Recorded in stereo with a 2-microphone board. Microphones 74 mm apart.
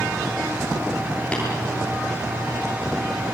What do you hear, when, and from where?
1.3 s tapping: 15° left (ahead or behind), 8 m